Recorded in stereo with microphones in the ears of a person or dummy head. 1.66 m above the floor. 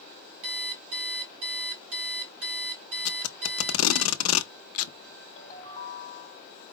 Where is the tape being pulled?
80° left, 0.6 m.